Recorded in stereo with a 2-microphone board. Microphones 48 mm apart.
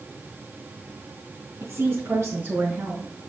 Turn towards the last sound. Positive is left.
turn(degrees=-40)  # may be behind; listen again after turning